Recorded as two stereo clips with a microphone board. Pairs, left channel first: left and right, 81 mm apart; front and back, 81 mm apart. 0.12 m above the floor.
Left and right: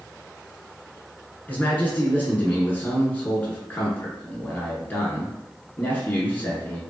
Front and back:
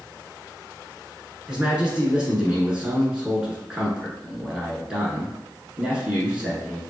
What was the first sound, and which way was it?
A man speaking, 120° left.